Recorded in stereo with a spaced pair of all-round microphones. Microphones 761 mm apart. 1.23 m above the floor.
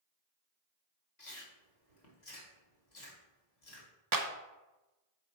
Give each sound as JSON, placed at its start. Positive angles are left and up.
{"t": 1.2, "sound": "chewing", "side_deg": 60, "distance_m": 1.6}
{"t": 4.1, "sound": "a clap", "side_deg": -30, "distance_m": 0.6}